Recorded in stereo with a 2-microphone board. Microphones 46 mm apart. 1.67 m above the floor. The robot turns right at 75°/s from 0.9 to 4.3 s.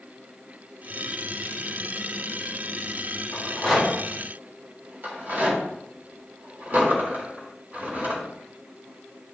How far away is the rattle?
About 4 m.